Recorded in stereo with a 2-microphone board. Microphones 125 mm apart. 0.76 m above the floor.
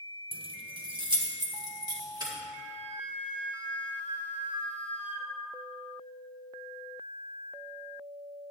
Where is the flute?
70° right (ahead or behind), 1.1 m.